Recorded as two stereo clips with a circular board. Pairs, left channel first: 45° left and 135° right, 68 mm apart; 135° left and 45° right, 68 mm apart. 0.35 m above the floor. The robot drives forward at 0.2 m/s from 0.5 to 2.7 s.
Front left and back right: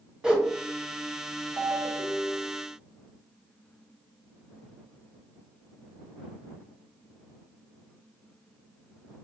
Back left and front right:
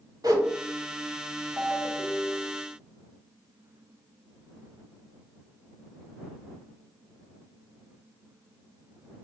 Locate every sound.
0.2 s a whoosh: 55° right, 1.3 m
1.6 s a ringtone: 115° right, 1.5 m; by 2.5 s 120° right, 1.6 m